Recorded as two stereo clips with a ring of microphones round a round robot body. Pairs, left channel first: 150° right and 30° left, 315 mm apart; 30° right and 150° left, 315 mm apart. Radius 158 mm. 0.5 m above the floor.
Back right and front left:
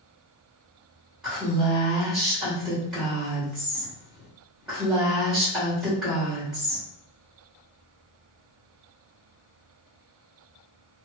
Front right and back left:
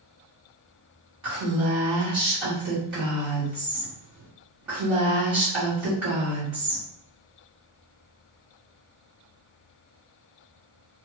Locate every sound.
1.2 s a woman speaking: 120° left, 1.6 m